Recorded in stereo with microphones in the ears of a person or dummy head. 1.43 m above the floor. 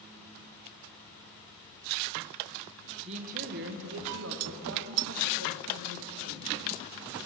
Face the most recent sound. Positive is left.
turn(degrees=-85)